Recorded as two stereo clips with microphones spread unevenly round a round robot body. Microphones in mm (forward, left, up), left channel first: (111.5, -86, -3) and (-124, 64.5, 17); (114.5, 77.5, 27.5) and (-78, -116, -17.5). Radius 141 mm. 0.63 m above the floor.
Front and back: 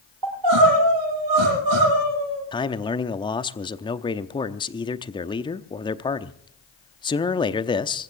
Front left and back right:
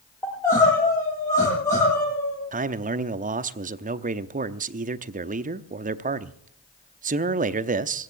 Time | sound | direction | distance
0.2 | crying | 125° left | 8 m
2.5 | a man speaking | 95° right | 0.8 m